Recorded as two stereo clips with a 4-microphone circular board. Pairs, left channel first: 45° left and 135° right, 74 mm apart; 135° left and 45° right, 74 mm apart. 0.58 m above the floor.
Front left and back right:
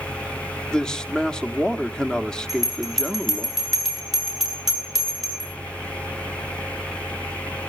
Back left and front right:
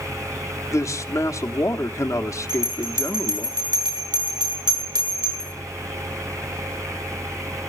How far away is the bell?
About 8 m.